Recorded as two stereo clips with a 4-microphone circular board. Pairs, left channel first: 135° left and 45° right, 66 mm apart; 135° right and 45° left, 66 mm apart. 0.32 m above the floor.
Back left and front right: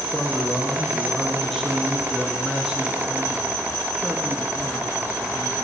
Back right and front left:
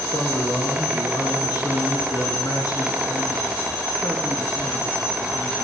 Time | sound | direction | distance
0.1 | a man speaking | 145° right | 5.5 m